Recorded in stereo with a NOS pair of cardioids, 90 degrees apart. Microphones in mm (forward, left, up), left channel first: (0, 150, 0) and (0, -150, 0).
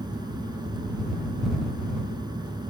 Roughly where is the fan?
Ahead.